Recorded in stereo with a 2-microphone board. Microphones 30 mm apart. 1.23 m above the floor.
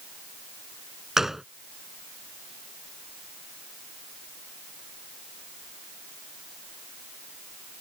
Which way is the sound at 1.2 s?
15° right (ahead or behind).